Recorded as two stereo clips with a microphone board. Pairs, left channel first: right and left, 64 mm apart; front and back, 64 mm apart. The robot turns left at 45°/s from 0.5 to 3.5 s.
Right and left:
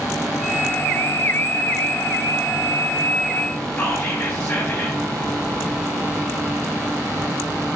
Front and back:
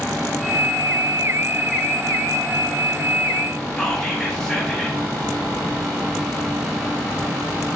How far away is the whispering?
About 1.1 m.